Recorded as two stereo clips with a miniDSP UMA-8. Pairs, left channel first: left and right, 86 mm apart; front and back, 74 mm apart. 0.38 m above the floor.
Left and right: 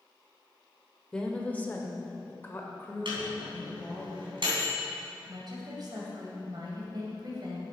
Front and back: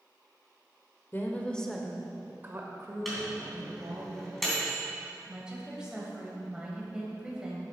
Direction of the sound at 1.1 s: 15° left.